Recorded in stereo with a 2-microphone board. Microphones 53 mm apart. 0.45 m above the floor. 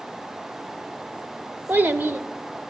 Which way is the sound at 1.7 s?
45° right (ahead or behind).